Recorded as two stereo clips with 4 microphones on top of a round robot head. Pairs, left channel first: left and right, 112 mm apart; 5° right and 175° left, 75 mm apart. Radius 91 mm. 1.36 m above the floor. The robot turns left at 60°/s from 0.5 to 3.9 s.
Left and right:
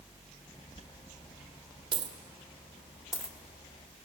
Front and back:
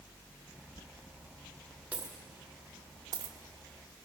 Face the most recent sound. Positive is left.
turn(degrees=135)